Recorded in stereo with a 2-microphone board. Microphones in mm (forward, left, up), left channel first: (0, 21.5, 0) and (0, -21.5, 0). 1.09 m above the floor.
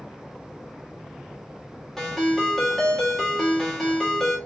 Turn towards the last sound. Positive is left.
turn(degrees=10)  # may be behind; listen again after turning